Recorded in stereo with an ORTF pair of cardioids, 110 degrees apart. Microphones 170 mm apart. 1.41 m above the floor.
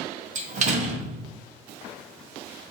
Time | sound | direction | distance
0.3 | a door slam | 45° right | 0.7 m